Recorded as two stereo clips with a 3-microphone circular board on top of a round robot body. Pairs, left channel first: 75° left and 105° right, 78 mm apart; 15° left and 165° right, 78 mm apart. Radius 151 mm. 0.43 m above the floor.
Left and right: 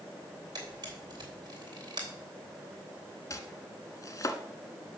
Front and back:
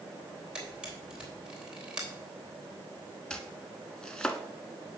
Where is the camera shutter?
85° right, 3.5 m.